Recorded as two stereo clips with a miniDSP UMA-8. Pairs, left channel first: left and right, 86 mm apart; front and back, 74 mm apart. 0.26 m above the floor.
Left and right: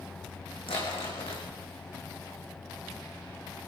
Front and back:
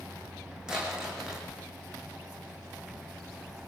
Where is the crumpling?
100° left, 9.5 m.